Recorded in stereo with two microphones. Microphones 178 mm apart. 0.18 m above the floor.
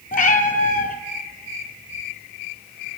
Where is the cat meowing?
60° left (ahead or behind), 0.6 m.